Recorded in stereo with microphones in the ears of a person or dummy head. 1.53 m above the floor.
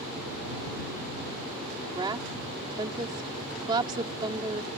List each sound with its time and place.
1.9 s a woman speaking: 25° right (ahead or behind)